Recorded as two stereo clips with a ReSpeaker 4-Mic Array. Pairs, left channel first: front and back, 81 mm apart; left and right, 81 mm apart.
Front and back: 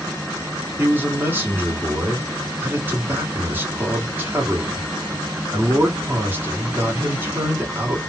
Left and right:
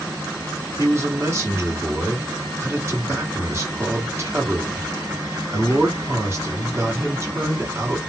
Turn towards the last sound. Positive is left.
turn(degrees=-125)